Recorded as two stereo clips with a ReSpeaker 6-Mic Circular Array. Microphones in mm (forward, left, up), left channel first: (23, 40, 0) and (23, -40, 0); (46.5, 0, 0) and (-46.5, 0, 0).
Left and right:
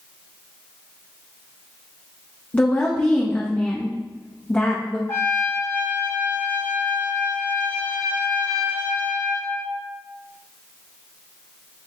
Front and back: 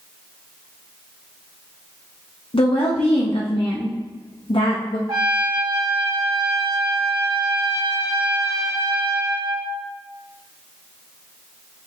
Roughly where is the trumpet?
Behind left.